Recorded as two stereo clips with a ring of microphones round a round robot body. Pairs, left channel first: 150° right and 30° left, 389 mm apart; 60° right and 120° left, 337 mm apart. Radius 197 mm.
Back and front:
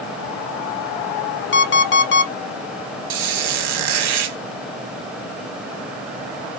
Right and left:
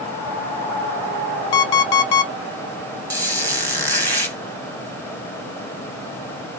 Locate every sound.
1.5 s an alarm clock: 85° right, 0.8 m
3.1 s a squeak: 25° left, 1.8 m